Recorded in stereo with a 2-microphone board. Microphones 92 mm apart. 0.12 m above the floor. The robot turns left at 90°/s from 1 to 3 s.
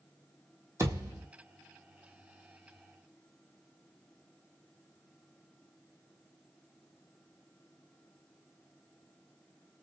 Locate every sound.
0.8 s a thud: 30° right (ahead or behind), 1.2 m; by 1.3 s 5° right (ahead or behind), 1.2 m